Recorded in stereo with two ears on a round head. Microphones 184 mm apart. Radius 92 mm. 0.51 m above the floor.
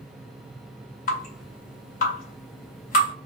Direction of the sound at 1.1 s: 40° left (ahead or behind).